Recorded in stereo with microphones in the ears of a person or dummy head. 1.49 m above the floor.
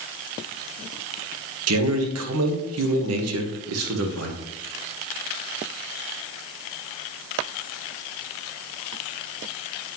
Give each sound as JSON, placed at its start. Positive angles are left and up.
{"t": 1.7, "sound": "a man speaking", "side_deg": -75, "distance_m": 1.4}